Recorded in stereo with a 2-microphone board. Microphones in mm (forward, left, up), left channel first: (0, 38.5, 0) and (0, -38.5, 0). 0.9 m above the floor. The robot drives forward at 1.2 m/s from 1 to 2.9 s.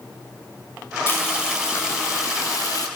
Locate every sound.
1.1 s frying: 30° left (ahead or behind), 5 m; by 2.9 s 50° left (ahead or behind), 3.5 m